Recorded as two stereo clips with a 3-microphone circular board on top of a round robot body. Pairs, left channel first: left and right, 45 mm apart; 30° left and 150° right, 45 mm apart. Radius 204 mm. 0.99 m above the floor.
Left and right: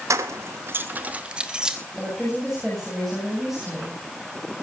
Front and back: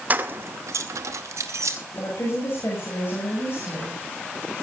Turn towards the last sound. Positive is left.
turn(degrees=0)